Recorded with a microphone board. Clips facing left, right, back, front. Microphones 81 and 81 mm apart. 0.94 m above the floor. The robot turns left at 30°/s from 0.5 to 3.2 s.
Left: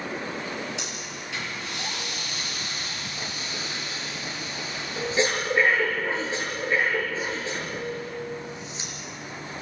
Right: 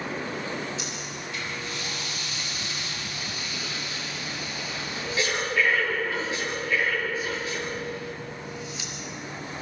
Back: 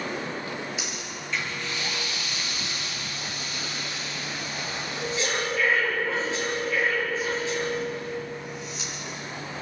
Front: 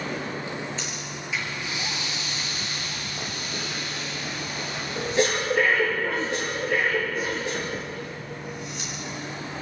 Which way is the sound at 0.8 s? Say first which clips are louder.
Right 1 dB, front 1 dB; 100° left.